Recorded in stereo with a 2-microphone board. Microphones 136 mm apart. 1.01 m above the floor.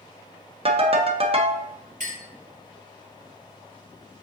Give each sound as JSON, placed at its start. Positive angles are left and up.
{"t": 0.7, "sound": "a ringtone", "side_deg": -40, "distance_m": 0.5}
{"t": 2.0, "sound": "a clink", "side_deg": -75, "distance_m": 2.5}